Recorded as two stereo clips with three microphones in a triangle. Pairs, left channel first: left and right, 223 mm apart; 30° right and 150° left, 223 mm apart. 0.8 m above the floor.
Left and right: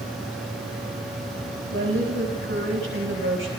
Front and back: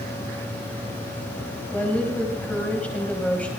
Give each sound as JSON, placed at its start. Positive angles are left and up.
{"t": 1.7, "sound": "a woman speaking", "azimuth_deg": -115, "distance_m": 4.0}